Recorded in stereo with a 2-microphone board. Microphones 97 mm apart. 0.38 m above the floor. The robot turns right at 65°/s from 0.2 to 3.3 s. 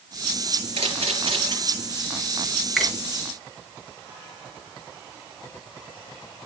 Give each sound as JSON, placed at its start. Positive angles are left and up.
{"t": 0.8, "sound": "a camera shutter", "side_deg": -80, "distance_m": 5.5}
{"t": 2.8, "sound": "a finger snap", "side_deg": 10, "distance_m": 3.5}